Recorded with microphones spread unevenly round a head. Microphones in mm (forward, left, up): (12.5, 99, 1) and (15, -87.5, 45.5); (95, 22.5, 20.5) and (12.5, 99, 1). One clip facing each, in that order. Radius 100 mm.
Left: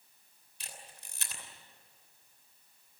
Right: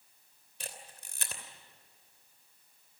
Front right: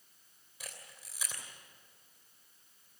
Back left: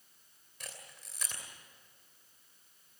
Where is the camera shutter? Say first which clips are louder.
Right 4 dB, even; 125° right, 3 m.